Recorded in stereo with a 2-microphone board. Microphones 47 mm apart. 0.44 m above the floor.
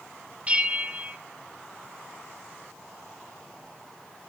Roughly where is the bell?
Right.